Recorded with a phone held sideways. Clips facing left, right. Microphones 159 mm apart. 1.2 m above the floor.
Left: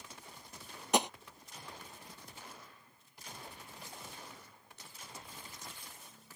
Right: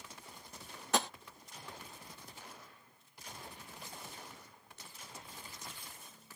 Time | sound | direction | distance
0.9 | tapping | 20° left (ahead or behind) | ?